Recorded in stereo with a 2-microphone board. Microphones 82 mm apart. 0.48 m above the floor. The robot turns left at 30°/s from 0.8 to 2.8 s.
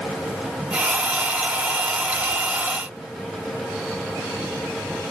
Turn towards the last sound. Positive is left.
No sound to turn to.